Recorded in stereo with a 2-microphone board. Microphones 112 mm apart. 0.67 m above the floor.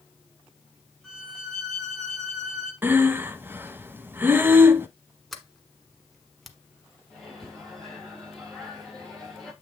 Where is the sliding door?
Centre (ahead or behind), 1.0 m.